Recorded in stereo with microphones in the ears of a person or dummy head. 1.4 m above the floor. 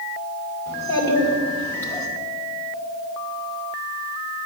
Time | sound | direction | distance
0.7 | a child speaking | 10° left (ahead or behind) | 2.5 m